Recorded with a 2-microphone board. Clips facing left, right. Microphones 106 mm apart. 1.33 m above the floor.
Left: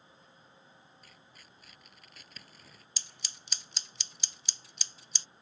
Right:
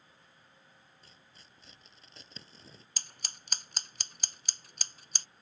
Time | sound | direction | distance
1.0 | tearing paper | 25° right (ahead or behind) | ?
3.0 | scissors | 45° right (ahead or behind) | ?